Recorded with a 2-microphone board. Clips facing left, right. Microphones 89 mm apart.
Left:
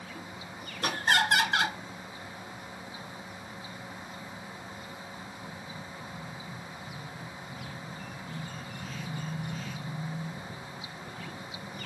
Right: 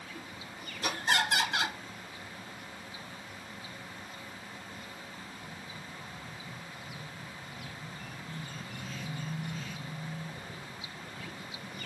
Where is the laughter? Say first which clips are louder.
Left 3 dB; 60° left (ahead or behind), 2 m.